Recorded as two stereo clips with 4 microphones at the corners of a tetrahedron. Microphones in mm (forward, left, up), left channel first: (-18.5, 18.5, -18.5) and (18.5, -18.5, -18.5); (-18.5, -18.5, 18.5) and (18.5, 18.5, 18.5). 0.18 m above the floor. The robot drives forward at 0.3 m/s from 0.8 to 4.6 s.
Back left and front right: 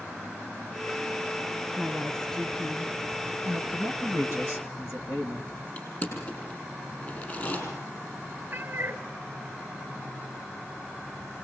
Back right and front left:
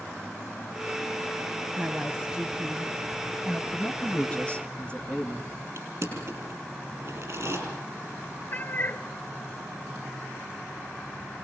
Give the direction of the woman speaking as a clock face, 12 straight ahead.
10 o'clock.